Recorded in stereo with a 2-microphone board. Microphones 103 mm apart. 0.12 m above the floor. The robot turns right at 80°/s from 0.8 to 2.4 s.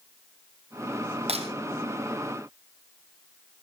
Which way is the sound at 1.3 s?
75° right (ahead or behind).